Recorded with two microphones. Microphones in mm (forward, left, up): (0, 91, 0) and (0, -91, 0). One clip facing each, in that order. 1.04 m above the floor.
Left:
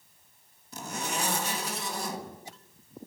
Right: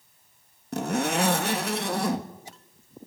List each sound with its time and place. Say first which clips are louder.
0.7 s a zipper: right 10 dB; 60° right (ahead or behind), 1.8 m